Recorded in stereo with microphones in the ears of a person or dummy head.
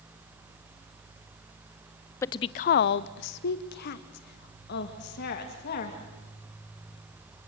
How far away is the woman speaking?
About 0.5 m.